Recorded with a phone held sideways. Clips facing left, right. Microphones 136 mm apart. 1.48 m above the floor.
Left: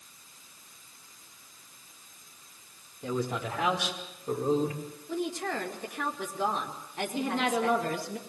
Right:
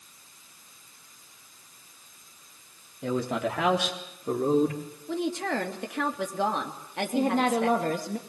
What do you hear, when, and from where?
3.0 s a man speaking: 85° right, 3.5 m; by 4.8 s 70° right (ahead or behind), 5 m
5.1 s a woman speaking: 85° right, 3 m
7.2 s a woman speaking: 50° right (ahead or behind), 1.9 m